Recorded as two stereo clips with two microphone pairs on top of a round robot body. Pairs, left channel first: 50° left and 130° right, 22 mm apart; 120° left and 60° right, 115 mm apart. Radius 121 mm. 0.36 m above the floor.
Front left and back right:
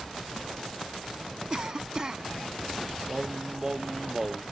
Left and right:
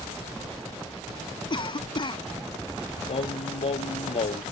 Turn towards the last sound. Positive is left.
turn(degrees=155)